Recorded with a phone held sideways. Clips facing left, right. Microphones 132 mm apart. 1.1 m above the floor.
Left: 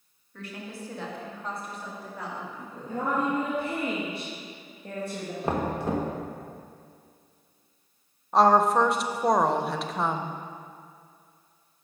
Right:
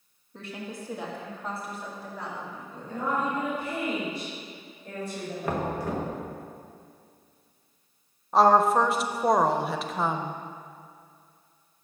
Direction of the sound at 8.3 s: Centre (ahead or behind).